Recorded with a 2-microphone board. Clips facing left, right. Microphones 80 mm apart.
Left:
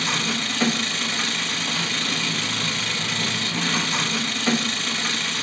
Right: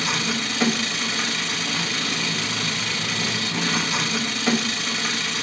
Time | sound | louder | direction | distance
0.0 | an engine running | even | 5° right (ahead or behind) | 1.2 m